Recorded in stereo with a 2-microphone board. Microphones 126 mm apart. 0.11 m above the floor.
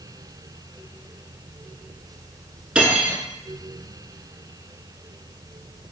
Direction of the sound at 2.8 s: 10° right (ahead or behind).